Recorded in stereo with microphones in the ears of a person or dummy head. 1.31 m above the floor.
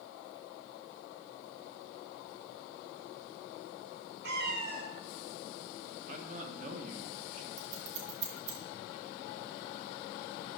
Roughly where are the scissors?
Right.